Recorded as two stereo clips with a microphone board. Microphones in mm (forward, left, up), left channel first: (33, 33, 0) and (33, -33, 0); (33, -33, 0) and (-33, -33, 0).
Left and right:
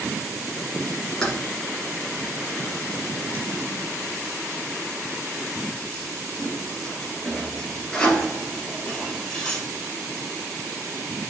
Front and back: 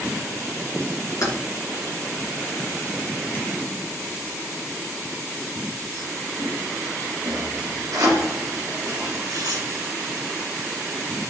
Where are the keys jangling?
15° left, 2 m; by 9.6 s 170° left, 3.5 m.